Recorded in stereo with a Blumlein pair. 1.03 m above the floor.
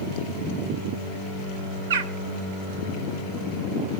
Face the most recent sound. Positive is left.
turn(degrees=-60)